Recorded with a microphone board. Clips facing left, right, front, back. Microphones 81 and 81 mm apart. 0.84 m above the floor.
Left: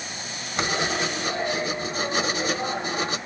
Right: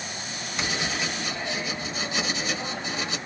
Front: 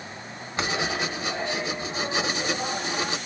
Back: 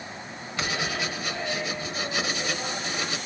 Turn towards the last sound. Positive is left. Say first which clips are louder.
# left 5 dB, front 2 dB
turn(degrees=60)